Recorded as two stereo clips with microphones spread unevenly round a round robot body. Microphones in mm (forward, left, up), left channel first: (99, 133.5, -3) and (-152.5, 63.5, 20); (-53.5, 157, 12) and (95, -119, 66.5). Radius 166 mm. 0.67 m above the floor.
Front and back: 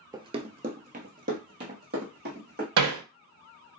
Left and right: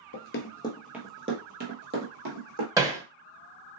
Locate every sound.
0.1 s running footsteps: 140° left, 0.7 m; by 2.7 s 105° right, 1.9 m
2.8 s hammering: 140° right, 0.6 m